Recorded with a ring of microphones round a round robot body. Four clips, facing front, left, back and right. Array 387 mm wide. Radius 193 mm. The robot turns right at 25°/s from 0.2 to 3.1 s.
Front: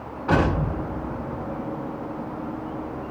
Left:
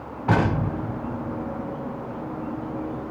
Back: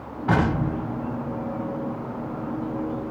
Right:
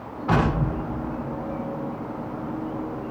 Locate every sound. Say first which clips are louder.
0.3 s an explosion: even, front 1 dB; 110° left, 2.5 m; by 1.6 s 145° left, 2.5 m